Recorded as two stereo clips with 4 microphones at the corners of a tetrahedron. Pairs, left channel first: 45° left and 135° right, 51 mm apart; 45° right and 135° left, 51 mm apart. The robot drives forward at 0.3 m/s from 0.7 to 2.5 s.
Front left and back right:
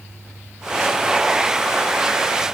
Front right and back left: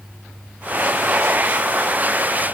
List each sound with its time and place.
Only background noise.